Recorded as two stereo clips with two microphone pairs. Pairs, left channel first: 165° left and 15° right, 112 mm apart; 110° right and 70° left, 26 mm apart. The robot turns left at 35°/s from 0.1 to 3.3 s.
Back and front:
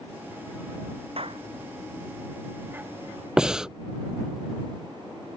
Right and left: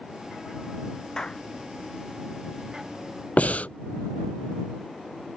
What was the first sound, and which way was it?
A clap, 45° right.